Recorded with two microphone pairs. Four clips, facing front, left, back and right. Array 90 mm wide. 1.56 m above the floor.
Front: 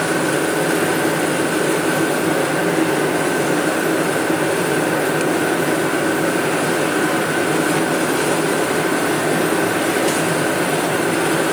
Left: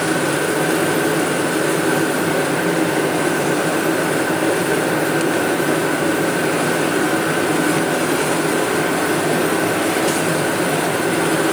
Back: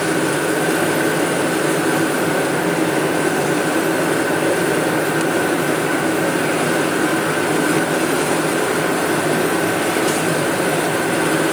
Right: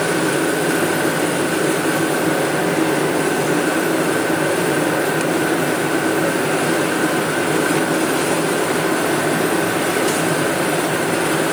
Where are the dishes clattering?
No dishes clattering in this recording.